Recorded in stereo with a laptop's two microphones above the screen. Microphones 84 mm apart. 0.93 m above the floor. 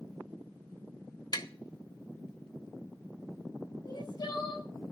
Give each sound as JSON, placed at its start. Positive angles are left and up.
{"t": 1.3, "sound": "tapping", "side_deg": 55, "distance_m": 1.0}
{"t": 3.8, "sound": "crying", "side_deg": 50, "distance_m": 6.0}